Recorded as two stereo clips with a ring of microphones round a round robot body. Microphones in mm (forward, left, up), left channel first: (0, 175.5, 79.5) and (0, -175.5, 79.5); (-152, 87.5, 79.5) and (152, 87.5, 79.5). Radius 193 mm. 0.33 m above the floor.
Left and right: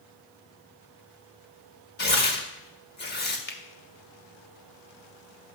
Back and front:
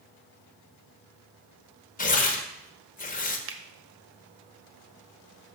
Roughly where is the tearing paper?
Behind left.